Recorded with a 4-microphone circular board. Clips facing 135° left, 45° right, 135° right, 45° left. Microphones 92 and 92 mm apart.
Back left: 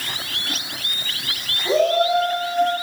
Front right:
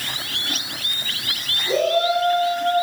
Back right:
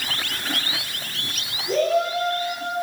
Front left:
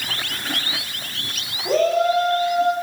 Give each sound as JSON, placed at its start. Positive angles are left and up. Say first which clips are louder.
{"t": 1.6, "sound": "a shout", "louder": "back left 2 dB, front left 3 dB", "azimuth_deg": 80, "distance_m": 9.5}